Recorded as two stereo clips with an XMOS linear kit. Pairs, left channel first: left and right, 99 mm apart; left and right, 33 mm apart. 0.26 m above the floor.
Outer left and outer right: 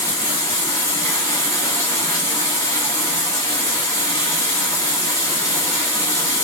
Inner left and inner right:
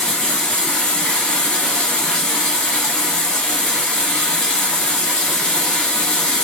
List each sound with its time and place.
0.0 s running water: 35° left (ahead or behind), 1.3 m